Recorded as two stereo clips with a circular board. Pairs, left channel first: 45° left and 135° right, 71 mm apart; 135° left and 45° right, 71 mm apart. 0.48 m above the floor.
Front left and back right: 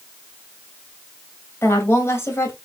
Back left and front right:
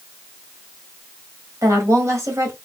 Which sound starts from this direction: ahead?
A woman speaking, at 1.6 s.